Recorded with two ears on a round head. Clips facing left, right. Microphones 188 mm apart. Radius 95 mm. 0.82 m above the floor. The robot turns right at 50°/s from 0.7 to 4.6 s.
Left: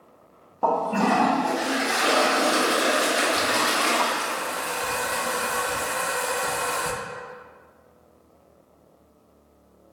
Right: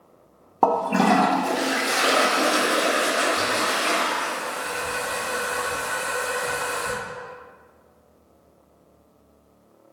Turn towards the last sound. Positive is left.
turn(degrees=100)